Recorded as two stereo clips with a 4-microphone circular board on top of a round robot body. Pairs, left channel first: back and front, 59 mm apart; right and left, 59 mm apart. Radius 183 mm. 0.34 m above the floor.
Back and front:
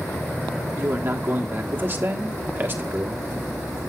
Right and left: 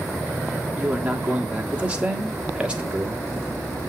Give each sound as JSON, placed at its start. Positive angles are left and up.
{"t": 0.8, "sound": "a man speaking", "azimuth_deg": 30, "distance_m": 1.7}